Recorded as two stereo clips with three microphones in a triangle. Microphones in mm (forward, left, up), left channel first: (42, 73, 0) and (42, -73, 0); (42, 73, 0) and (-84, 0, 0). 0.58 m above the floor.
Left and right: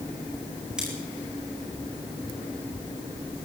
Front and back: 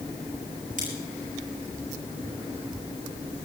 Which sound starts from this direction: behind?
Scissors, at 0.8 s.